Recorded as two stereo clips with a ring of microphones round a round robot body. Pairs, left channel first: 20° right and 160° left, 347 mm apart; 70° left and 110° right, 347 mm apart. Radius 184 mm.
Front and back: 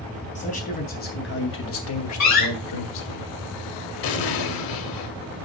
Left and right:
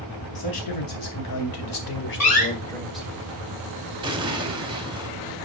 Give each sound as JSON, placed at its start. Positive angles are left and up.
{"t": 0.3, "sound": "a man speaking", "azimuth_deg": 45, "distance_m": 4.0}
{"t": 2.2, "sound": "a door slam", "azimuth_deg": 20, "distance_m": 4.0}
{"t": 4.0, "sound": "an explosion", "azimuth_deg": -35, "distance_m": 1.5}